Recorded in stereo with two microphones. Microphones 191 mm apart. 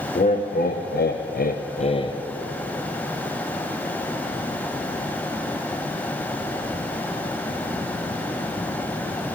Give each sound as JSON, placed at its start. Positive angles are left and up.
{"t": 0.1, "sound": "laughter", "side_deg": 45, "distance_m": 0.9}